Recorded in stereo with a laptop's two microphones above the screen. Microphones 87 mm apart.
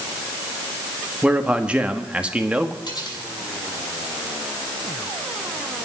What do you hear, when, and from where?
1.2 s a man speaking: 15° right (ahead or behind), 1.9 m
2.9 s cutlery clinking: 60° left (ahead or behind), 6.5 m